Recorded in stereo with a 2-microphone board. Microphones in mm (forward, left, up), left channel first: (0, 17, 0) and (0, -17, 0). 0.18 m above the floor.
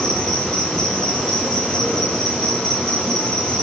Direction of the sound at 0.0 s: 35° left (ahead or behind).